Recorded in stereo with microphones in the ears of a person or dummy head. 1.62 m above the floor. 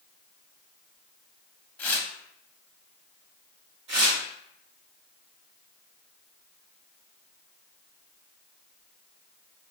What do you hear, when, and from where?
1.8 s tearing paper: 15° left (ahead or behind), 0.8 m
3.9 s tearing paper: 30° right (ahead or behind), 1.6 m